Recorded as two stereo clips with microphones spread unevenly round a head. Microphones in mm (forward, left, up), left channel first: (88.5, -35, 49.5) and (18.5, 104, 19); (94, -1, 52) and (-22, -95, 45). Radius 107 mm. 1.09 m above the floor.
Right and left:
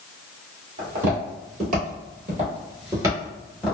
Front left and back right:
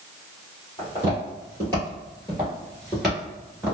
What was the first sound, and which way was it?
Footsteps, 105° left.